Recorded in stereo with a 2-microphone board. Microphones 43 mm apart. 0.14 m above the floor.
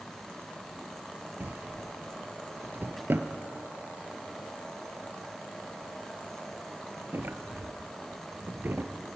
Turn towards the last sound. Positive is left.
turn(degrees=-55)  # may be behind; listen again after turning